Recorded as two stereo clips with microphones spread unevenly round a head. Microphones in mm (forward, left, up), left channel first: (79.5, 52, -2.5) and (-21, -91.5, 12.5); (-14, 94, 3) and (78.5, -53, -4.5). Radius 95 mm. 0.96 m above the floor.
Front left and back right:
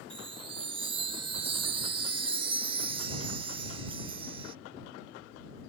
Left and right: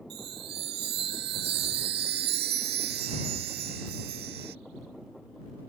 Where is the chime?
75° right.